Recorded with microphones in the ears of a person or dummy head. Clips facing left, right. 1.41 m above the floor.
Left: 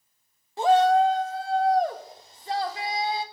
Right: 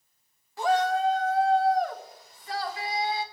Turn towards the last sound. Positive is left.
turn(degrees=30)  # may be behind; listen again after turning